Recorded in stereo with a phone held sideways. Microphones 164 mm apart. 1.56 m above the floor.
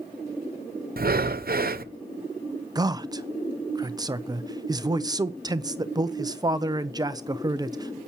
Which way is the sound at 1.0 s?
60° right (ahead or behind).